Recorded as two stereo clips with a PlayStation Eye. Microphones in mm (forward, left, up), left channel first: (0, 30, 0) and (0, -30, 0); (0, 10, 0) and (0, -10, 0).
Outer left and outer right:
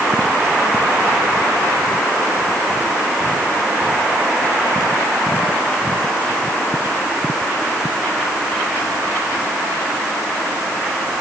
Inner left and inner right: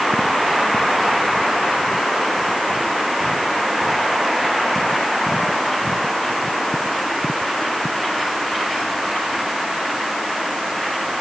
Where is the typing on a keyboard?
I don't hear typing on a keyboard.